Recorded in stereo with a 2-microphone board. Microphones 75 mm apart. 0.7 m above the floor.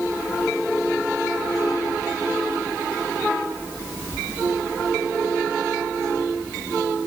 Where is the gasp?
I don't hear a gasp.